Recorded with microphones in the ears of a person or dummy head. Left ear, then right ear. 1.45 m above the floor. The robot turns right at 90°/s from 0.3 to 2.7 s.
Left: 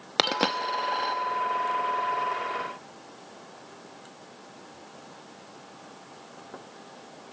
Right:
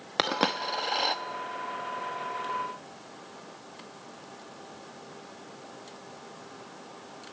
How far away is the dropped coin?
About 0.9 m.